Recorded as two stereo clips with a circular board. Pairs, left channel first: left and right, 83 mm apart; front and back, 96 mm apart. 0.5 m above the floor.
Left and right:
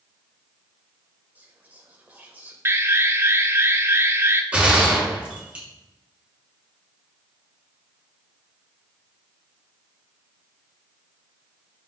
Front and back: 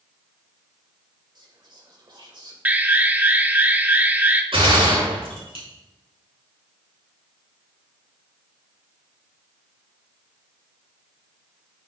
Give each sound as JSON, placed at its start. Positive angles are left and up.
{"t": 1.4, "sound": "whispering", "azimuth_deg": -155, "distance_m": 2.0}
{"t": 2.6, "sound": "an alarm", "azimuth_deg": -120, "distance_m": 0.7}
{"t": 4.5, "sound": "a gunshot", "azimuth_deg": -165, "distance_m": 5.0}